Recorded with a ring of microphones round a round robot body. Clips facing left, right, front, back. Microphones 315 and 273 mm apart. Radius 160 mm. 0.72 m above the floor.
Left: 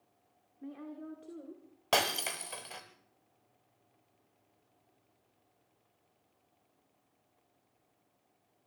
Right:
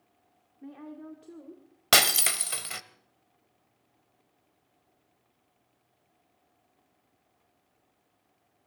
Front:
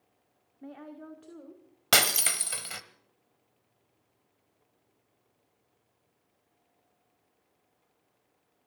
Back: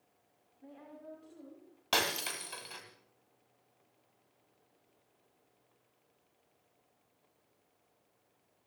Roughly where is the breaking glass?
Ahead right.